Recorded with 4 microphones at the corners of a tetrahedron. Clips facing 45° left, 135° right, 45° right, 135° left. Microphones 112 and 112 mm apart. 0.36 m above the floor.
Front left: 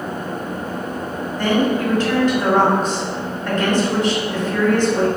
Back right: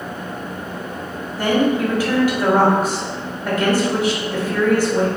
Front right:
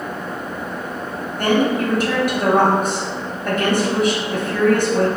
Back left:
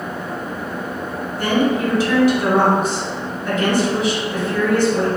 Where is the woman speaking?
55° right, 1.8 m.